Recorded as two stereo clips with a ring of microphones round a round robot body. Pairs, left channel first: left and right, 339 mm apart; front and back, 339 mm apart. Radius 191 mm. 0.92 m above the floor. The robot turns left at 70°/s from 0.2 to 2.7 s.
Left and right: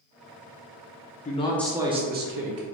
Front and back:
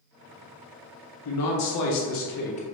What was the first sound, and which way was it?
A man speaking, 30° left.